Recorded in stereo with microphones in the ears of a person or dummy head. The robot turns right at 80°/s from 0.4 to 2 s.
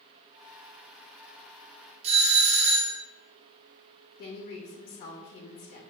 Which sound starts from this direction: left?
A woman speaking, at 4.2 s.